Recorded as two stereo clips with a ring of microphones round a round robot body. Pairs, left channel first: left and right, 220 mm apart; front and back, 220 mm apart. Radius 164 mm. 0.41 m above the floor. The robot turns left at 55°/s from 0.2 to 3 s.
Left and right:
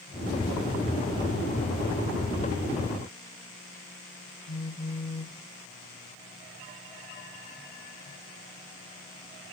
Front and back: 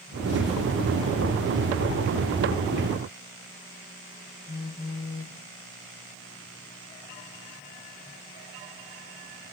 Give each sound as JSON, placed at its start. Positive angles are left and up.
{"t": 4.5, "sound": "a phone buzzing", "azimuth_deg": 30, "distance_m": 1.6}